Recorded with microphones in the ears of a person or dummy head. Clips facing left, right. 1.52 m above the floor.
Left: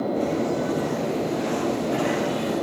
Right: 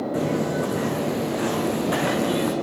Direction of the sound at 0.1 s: 80° right.